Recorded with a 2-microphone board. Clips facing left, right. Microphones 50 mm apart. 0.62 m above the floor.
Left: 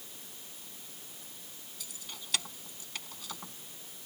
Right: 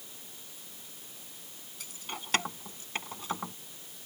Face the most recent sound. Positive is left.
turn(degrees=-30)  # may be behind; listen again after turning